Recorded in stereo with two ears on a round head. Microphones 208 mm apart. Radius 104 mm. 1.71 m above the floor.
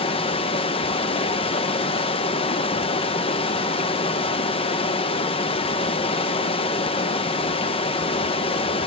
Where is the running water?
25° left (ahead or behind), 0.9 m.